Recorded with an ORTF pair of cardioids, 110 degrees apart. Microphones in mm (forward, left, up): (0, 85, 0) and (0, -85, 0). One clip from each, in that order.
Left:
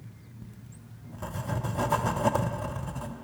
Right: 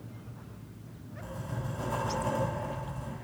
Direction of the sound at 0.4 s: 55° left.